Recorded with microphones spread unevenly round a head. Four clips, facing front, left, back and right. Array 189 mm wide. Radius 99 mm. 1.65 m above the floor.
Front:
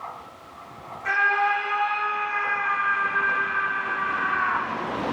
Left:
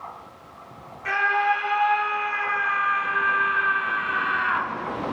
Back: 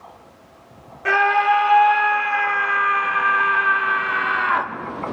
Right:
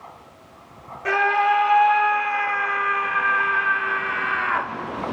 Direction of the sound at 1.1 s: 140° right.